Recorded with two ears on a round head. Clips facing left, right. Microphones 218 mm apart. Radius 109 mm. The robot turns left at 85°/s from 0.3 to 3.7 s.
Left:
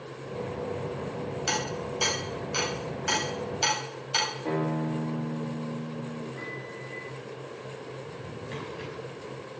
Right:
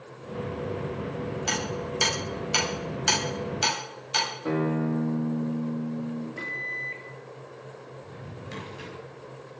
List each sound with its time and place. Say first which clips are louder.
1.5 s hammering: right 1 dB; 15° left (ahead or behind), 8.5 m; by 4.3 s 5° right (ahead or behind), 8.5 m
4.5 s a guitar: right 3 dB; 15° right (ahead or behind), 3.5 m
6.4 s a microwave: left 2 dB; 45° right (ahead or behind), 3 m
8.0 s a drawer: left 3 dB; 5° right (ahead or behind), 6 m